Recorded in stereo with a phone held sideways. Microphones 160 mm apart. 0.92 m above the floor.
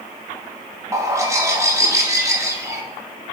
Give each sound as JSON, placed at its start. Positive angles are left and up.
{"t": 0.9, "sound": "a bird", "side_deg": -20, "distance_m": 1.0}